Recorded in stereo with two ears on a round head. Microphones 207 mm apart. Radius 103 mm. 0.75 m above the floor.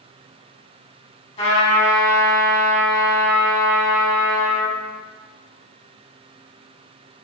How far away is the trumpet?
About 1.5 m.